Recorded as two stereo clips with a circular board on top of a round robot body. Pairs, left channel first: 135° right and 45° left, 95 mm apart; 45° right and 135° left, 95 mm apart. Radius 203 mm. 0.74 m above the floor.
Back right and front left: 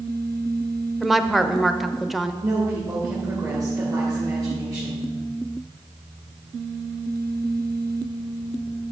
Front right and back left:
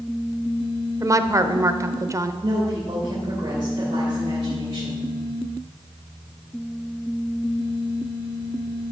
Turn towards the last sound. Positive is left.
turn(degrees=90)